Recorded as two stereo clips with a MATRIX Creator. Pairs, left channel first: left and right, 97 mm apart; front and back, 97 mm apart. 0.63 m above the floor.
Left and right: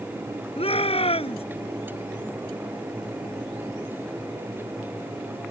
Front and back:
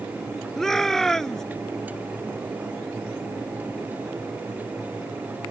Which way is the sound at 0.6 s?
85° left.